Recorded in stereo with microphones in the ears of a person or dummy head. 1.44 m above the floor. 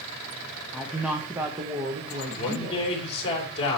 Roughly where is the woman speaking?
Centre.